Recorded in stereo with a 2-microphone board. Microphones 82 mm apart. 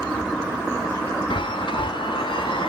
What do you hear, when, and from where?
1.3 s a chime: 70° left (ahead or behind), 0.5 m